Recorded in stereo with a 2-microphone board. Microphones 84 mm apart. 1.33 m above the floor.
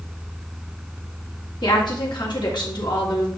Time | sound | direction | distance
1.6 | a woman speaking | 75° left (ahead or behind) | 1.9 m